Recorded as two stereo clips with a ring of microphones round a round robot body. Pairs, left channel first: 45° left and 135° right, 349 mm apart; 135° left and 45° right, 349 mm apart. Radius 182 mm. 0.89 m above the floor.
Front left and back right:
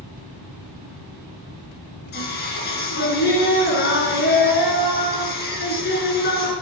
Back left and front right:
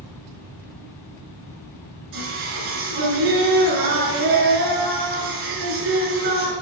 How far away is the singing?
About 5 m.